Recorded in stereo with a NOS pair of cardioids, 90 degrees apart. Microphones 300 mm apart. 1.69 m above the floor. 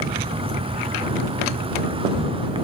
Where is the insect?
20° right.